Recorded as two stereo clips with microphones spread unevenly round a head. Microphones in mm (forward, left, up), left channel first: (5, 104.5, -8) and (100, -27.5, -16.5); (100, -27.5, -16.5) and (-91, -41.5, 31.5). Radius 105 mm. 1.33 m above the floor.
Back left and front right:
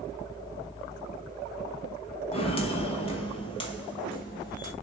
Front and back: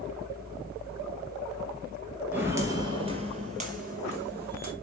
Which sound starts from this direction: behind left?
Footsteps, at 2.3 s.